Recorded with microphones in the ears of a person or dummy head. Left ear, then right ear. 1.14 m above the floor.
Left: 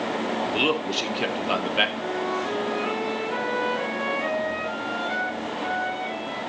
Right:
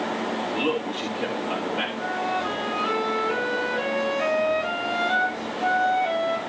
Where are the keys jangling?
I don't hear keys jangling.